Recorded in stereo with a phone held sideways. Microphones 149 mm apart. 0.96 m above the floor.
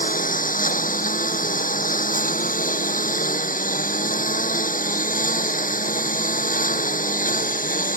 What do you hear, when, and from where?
0.0 s a lawn mower: 65° left (ahead or behind)